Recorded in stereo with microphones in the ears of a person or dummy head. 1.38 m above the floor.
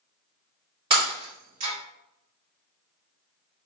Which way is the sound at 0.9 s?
35° right (ahead or behind).